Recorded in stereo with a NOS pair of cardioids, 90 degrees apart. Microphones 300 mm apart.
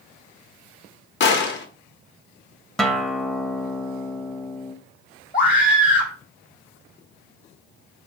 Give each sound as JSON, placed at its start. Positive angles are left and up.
{"t": 1.2, "sound": "a gunshot", "azimuth_deg": 40, "distance_m": 0.8}
{"t": 2.8, "sound": "a guitar", "azimuth_deg": 0, "distance_m": 0.5}
{"t": 5.3, "sound": "a scream", "azimuth_deg": 30, "distance_m": 0.8}